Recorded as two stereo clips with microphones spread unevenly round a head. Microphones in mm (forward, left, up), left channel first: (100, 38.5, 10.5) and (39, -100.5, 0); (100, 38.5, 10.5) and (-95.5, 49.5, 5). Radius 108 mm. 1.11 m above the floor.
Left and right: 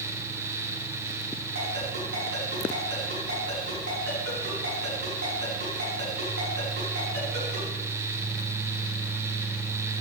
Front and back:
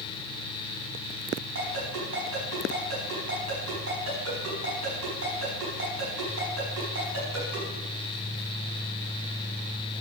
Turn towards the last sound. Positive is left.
turn(degrees=-155)